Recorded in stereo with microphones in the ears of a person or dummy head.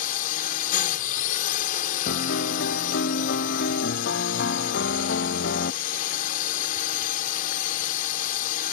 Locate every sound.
0.0 s a drone: 50° left (ahead or behind)
2.1 s a piano: 60° left (ahead or behind)